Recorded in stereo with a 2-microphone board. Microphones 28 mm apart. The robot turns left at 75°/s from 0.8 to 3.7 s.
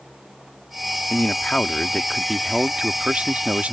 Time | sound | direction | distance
1.1 | a man speaking | 90° left | ?